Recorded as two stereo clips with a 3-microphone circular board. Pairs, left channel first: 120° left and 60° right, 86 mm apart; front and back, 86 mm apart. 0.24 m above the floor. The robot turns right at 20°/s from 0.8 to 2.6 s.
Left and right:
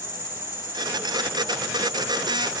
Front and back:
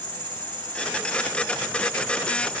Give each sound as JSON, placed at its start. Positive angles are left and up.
{"t": 0.0, "sound": "an insect", "azimuth_deg": 160, "distance_m": 3.0}